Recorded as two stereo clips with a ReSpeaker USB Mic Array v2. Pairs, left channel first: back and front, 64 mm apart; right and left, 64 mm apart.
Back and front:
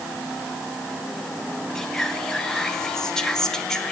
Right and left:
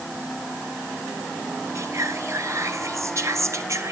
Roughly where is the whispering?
Left.